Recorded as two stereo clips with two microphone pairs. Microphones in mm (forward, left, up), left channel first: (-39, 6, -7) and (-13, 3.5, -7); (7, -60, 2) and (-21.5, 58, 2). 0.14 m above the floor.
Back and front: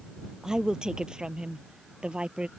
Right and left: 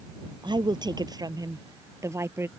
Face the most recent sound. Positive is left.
turn(degrees=35)